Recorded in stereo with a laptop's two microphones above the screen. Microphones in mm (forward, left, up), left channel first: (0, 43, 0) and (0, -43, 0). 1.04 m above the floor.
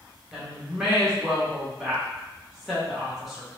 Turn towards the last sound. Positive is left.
turn(degrees=-5)  # may be behind; listen again after turning